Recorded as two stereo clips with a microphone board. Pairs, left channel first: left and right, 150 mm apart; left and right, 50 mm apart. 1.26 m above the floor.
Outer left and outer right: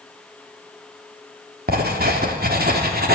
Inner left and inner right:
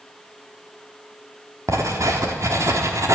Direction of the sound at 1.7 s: 75° right (ahead or behind).